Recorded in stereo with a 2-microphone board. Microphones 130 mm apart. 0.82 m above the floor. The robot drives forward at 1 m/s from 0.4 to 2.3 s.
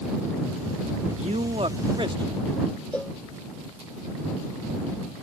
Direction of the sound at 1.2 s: 55° right (ahead or behind).